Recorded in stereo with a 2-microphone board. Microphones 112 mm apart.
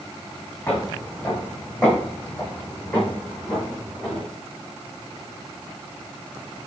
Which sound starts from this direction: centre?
Footsteps, at 0.7 s.